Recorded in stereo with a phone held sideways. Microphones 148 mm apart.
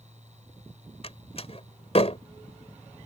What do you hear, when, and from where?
0.0 s a fan: 55° right (ahead or behind)
1.0 s a door slam: 45° left (ahead or behind)